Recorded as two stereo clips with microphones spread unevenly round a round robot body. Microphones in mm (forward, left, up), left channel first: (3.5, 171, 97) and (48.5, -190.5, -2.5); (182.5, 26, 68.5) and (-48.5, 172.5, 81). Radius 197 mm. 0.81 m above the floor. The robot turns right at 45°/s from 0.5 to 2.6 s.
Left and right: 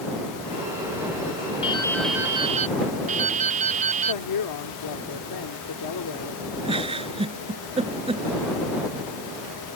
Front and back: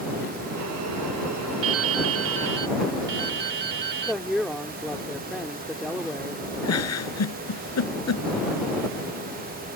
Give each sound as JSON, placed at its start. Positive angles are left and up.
{"t": 1.6, "sound": "dripping", "azimuth_deg": 150}
{"t": 4.0, "sound": "a woman speaking", "azimuth_deg": 60}
{"t": 6.7, "sound": "a giggle", "azimuth_deg": -5}